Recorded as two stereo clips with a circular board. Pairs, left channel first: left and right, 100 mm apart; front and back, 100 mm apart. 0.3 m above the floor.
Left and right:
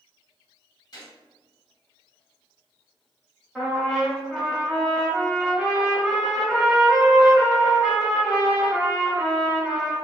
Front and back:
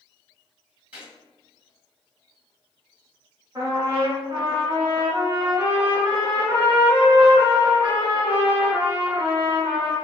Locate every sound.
0.9 s a gunshot: 110° left, 1.5 m
3.5 s a trumpet: straight behind, 1.1 m